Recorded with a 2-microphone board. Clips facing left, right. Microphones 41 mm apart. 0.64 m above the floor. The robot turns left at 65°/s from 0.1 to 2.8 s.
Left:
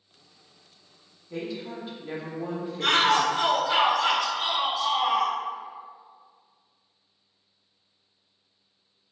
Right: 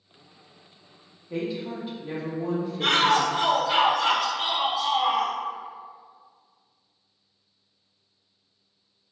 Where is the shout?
10° right (ahead or behind), 1.1 m.